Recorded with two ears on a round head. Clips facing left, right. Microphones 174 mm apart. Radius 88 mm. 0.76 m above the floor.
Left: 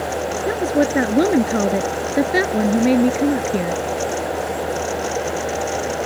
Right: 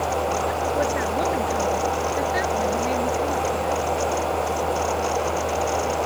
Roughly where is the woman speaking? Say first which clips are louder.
Left 5 dB; left.